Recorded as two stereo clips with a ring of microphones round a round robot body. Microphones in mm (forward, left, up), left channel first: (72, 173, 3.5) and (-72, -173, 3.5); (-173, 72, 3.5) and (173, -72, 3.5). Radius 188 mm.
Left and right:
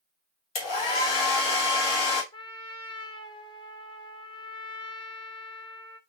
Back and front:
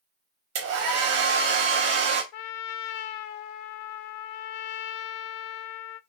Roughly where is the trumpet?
Behind left.